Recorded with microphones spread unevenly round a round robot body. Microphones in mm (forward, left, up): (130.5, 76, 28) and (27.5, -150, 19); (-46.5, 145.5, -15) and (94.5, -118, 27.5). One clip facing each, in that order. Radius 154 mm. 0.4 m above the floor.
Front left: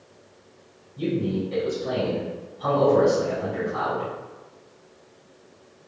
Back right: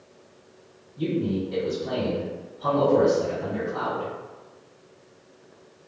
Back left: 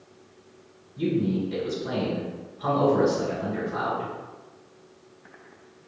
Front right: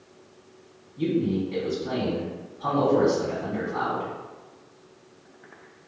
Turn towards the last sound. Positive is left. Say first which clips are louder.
# even, front right 1 dB
turn(degrees=105)